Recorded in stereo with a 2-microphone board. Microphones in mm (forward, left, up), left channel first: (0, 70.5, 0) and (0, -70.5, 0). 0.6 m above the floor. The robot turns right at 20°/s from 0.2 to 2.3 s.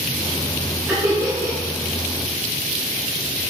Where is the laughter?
15° right (ahead or behind), 0.9 m; by 1.6 s 20° right (ahead or behind), 0.9 m.